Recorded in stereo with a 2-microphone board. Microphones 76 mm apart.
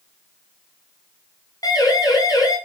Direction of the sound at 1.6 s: 50° left (ahead or behind).